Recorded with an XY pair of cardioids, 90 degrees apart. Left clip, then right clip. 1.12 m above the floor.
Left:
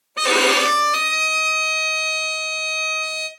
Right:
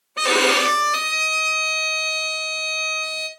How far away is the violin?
About 0.9 m.